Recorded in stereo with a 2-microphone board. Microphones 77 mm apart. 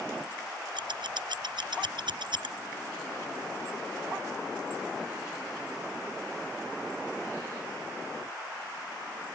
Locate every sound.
0.8 s scissors: 85° right